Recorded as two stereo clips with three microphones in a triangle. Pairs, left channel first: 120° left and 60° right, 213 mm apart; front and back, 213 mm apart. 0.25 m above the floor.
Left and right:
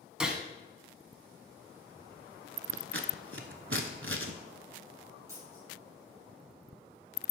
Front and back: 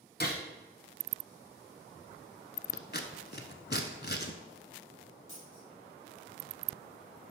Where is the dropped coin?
15° left, 2.5 m.